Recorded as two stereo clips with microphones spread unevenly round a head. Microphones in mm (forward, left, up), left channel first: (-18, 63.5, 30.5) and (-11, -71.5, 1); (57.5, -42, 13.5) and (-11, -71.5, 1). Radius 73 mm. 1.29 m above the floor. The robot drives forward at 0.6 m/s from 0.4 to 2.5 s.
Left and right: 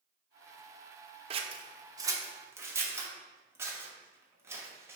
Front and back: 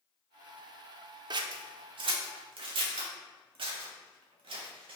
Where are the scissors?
140° right, 0.6 m; by 5.0 s 165° right, 1.2 m.